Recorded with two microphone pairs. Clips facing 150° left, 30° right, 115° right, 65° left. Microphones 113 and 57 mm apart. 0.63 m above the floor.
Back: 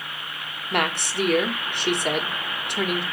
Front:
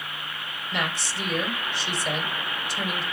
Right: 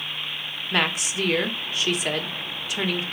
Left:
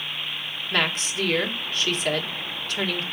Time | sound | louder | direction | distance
0.7 | a woman speaking | back 6 dB, right 1 dB | 170° left | 1.6 m